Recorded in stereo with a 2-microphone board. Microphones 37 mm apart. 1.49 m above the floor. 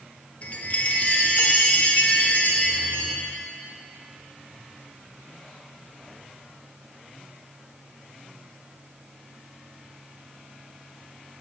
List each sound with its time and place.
0.4 s a chime: 45° left (ahead or behind), 0.9 m